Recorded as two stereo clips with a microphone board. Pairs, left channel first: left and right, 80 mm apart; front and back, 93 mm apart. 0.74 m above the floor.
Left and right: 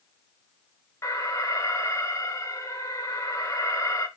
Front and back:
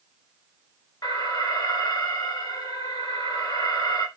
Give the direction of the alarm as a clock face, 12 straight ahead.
11 o'clock.